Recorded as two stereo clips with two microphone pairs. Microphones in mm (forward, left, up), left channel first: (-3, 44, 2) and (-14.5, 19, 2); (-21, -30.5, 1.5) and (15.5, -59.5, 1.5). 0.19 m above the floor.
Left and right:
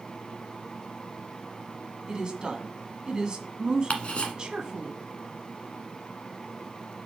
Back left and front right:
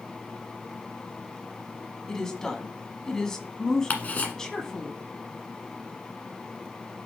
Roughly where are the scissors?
I don't hear scissors.